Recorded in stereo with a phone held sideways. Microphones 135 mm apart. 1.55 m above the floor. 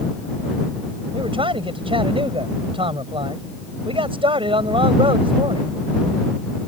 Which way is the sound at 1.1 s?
40° right (ahead or behind).